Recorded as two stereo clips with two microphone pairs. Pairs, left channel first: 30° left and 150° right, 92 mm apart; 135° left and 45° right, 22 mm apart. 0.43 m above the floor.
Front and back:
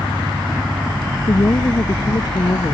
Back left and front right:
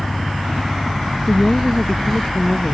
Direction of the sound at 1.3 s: 75° left.